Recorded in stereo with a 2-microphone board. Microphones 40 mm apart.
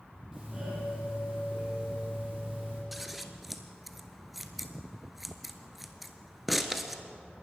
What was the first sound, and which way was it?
A doorbell, 15° right (ahead or behind).